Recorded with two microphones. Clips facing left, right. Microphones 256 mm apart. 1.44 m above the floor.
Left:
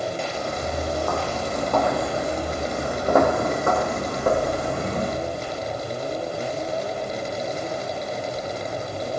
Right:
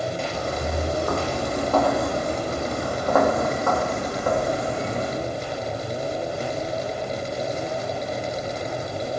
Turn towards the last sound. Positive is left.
turn(degrees=50)  # may be behind; listen again after turning